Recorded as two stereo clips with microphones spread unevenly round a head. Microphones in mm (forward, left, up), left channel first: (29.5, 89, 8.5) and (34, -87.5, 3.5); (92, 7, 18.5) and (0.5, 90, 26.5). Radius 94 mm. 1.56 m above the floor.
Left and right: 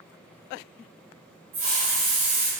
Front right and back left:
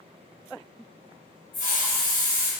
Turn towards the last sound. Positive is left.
turn(degrees=-115)